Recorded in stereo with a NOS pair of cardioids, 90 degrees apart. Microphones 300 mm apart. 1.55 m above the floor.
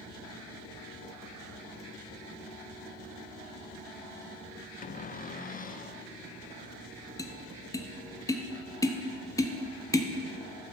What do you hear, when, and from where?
4.8 s a cupboard door: 30° left, 0.7 m
7.2 s tapping: 10° left, 0.8 m